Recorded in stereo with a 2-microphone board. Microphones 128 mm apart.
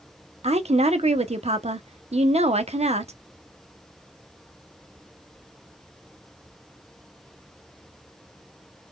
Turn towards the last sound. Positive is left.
turn(degrees=-55)  # may be behind; listen again after turning